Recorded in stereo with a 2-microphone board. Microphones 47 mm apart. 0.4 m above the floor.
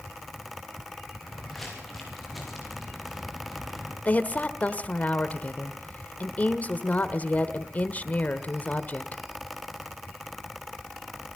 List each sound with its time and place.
1.2 s footsteps: 5° left (ahead or behind), 10 m; by 4.0 s 5° right (ahead or behind), 8.5 m
4.0 s a woman speaking: 35° left (ahead or behind), 1.5 m